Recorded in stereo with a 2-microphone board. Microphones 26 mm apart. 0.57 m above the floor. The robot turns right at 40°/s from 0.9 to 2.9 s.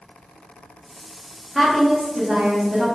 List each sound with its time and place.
1.6 s a woman speaking: 170° right, 1.0 m; by 2.9 s 115° right, 1.0 m